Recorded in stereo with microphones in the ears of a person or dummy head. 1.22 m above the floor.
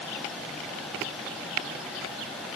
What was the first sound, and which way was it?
Only background noise.